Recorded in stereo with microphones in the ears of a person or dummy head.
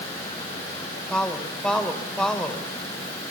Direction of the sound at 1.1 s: 5° left (ahead or behind).